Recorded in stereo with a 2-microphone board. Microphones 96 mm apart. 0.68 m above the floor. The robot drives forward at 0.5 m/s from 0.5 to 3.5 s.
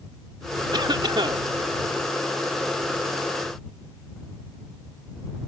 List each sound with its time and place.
0.7 s a cough: 50° right (ahead or behind); by 1.4 s 60° right (ahead or behind)